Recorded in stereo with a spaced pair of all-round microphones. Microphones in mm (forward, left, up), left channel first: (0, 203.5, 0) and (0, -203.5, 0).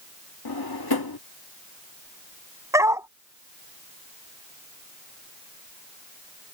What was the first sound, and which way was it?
A drawer, 65° left (ahead or behind).